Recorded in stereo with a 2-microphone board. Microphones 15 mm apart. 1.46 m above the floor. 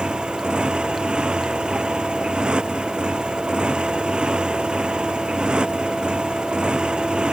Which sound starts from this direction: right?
A motorcycle, at 0.0 s.